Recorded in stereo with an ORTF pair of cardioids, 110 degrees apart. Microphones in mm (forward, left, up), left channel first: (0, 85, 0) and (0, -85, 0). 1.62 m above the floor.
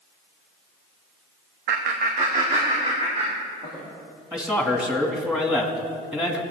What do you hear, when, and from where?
1.7 s laughter: 65° right, 0.9 m; by 3.9 s 30° right, 4 m
4.3 s a man speaking: 5° right, 2.5 m